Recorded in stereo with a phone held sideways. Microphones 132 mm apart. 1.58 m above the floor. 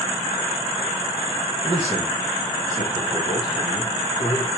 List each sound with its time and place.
1.6 s a man speaking: 35° right (ahead or behind), 1.3 m; by 4.5 s 40° left (ahead or behind), 4.5 m